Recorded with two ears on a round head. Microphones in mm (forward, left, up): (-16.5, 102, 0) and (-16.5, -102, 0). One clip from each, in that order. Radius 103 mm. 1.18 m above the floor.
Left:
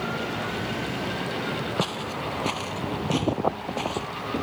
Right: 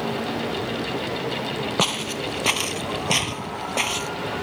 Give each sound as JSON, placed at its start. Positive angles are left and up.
{"t": 1.8, "sound": "footsteps", "side_deg": -45}